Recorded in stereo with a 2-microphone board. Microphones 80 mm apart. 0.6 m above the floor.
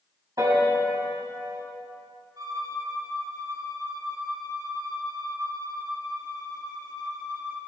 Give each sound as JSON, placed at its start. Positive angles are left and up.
{"t": 0.4, "sound": "a piano", "side_deg": -50, "distance_m": 3.0}
{"t": 2.4, "sound": "a violin", "side_deg": -55, "distance_m": 3.5}